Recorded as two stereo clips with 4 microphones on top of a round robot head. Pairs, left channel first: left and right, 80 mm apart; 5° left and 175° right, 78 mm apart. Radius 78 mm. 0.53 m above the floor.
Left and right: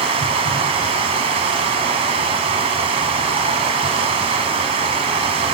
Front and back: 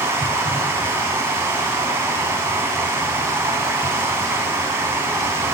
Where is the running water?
105° right, 1.5 m.